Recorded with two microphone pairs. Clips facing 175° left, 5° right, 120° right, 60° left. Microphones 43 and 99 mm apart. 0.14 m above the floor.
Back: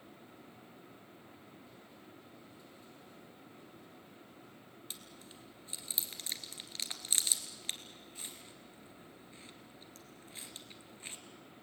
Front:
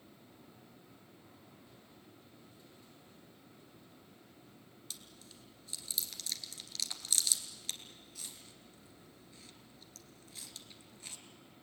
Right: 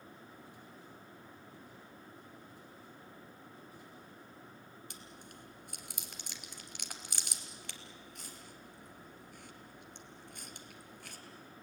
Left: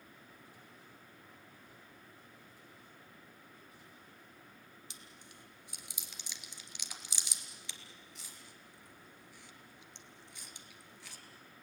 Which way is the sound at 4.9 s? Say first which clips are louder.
Back 1 dB, right 5 dB; 130° right.